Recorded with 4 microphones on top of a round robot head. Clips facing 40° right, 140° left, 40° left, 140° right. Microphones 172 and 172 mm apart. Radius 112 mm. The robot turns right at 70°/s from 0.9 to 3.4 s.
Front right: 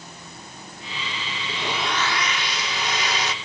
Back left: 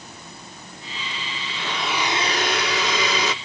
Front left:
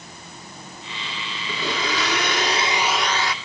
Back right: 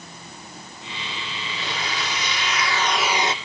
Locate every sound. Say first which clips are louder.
1.5 s a blender: front right 1 dB, front left 6 dB; 25° left; by 3.3 s 155° left